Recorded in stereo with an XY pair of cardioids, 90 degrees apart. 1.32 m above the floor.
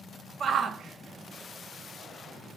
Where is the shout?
60° right, 0.6 m.